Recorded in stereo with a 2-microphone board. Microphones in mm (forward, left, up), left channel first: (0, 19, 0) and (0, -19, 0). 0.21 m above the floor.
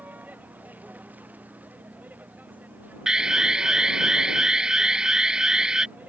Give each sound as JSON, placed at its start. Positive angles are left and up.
{"t": 0.0, "sound": "a vehicle", "side_deg": -45}
{"t": 3.1, "sound": "an alarm", "side_deg": -20}